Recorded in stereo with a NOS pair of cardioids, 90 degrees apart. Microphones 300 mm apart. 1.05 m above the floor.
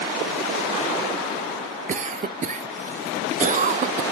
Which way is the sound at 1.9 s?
25° right.